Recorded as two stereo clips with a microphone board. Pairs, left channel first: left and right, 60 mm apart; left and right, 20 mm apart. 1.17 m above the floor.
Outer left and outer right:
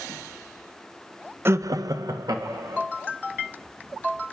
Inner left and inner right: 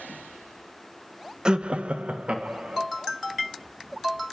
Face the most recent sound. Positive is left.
turn(degrees=-75)  # may be behind; listen again after turning